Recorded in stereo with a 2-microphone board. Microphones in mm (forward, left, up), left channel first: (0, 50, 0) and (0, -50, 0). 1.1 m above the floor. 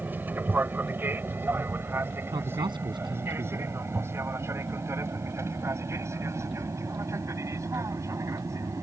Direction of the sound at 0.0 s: 20° right (ahead or behind).